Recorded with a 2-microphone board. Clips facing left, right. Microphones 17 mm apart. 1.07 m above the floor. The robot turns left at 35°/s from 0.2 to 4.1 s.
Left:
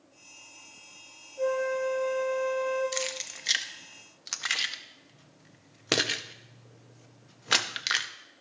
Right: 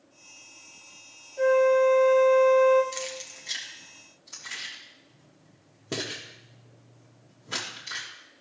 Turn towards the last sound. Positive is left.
turn(degrees=65)  # may be behind; listen again after turning